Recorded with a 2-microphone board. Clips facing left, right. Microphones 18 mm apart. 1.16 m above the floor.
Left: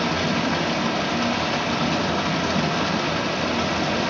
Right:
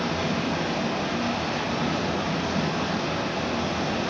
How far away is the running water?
About 0.9 m.